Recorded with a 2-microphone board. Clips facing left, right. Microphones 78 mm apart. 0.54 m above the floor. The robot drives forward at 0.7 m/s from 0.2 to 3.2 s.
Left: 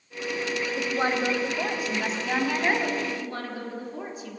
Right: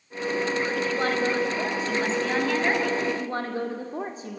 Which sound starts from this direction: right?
A woman speaking, at 3.1 s.